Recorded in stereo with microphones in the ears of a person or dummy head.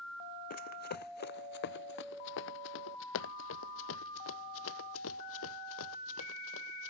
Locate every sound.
0.5 s running footsteps: 50° left (ahead or behind); by 6.9 s 80° left